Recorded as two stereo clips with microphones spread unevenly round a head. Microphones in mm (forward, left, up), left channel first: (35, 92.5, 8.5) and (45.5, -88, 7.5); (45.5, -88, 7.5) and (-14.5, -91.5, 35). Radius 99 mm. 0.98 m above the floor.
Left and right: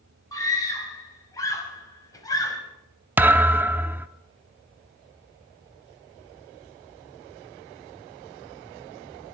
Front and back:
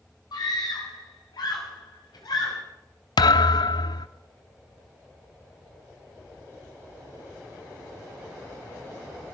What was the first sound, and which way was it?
A scream, 20° left.